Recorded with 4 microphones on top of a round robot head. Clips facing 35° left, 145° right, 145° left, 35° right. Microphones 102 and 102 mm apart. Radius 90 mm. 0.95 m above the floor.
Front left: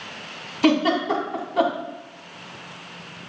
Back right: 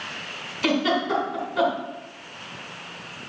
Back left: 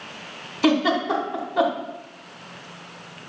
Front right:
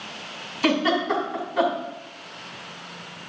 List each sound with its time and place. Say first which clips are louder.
0.6 s a giggle: front left 4 dB, back left 2 dB; 80° left, 1.9 m